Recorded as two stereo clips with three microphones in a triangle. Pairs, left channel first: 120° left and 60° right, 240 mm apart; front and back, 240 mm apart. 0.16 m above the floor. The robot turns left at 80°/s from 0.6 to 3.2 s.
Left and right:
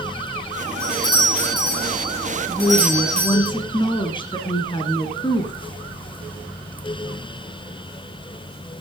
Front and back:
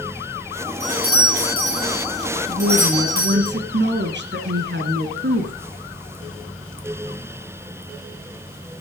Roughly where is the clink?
I don't hear a clink.